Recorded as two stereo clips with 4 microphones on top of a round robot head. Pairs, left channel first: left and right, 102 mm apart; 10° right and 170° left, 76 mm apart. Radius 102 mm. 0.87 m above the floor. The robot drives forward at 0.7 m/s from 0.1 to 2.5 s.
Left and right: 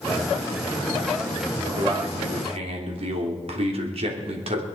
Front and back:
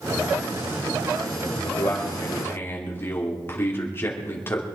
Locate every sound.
1.6 s a man speaking: 60° right, 3 m; by 4.7 s 70° right, 3 m